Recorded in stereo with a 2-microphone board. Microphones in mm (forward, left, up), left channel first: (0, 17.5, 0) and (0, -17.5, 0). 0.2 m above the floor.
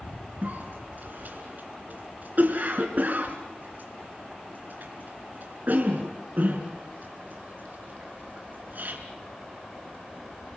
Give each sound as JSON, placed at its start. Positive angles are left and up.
{"t": 0.4, "sound": "a cough", "side_deg": -55, "distance_m": 2.0}